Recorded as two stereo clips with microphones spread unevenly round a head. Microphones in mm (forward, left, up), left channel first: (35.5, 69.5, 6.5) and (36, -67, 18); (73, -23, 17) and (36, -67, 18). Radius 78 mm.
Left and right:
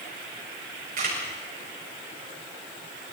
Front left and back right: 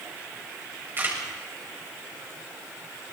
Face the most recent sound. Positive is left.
turn(degrees=-80)